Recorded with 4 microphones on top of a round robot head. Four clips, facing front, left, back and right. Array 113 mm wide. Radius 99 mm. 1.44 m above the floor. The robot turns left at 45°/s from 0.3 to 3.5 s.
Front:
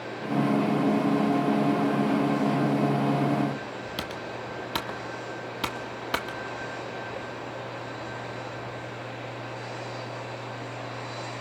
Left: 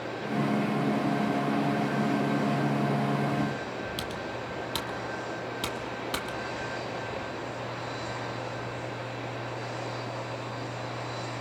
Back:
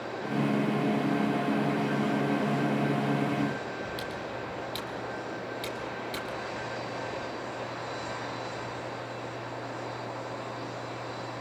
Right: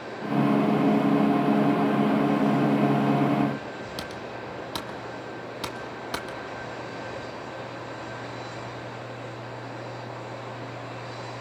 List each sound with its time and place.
4.0 s typing on a keyboard: 15° right, 1.1 m